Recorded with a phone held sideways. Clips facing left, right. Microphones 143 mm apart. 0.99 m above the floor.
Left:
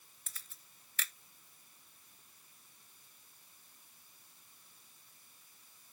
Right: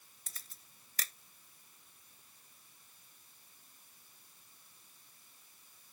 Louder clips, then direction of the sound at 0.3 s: Even; 40° right (ahead or behind).